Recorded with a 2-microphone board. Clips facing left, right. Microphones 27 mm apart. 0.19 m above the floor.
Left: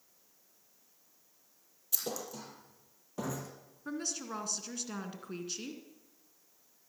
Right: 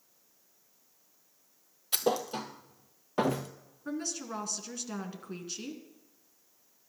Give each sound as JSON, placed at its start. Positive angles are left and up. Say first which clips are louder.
{"t": 1.9, "sound": "a thud", "louder": "right 10 dB", "side_deg": -50, "distance_m": 1.3}
{"t": 3.9, "sound": "a woman speaking", "louder": "right 2 dB", "side_deg": 0, "distance_m": 2.0}